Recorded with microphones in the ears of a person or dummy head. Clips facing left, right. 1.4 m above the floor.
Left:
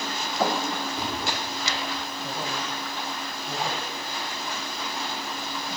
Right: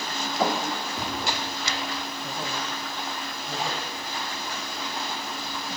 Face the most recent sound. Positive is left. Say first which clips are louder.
# left 1 dB
turn(degrees=0)  # may be behind; listen again after turning